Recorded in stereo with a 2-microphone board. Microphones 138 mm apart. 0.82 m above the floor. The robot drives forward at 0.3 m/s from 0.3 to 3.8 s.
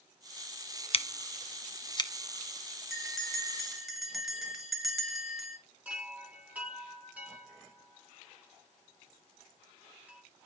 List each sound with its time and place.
0.9 s scissors: 45° left (ahead or behind), 0.5 m; by 2.1 s 30° left (ahead or behind), 0.7 m
2.9 s a bell: centre (ahead or behind), 1.4 m
5.8 s a chime: 10° right (ahead or behind), 3 m